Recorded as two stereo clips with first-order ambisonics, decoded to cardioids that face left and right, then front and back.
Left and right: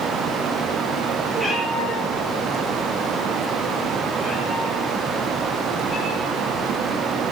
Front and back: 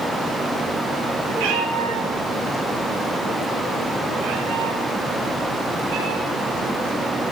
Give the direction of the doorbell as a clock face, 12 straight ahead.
I don't hear a doorbell.